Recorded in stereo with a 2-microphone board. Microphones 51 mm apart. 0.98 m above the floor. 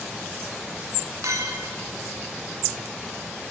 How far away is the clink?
About 1.4 m.